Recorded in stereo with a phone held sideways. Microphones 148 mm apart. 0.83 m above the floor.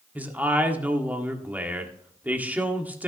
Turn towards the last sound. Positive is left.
turn(degrees=-10)  # may be behind; listen again after turning